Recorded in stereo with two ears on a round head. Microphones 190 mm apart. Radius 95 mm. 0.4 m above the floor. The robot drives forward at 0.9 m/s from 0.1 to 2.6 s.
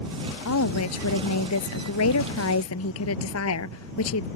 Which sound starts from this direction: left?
A woman speaking, at 0.5 s.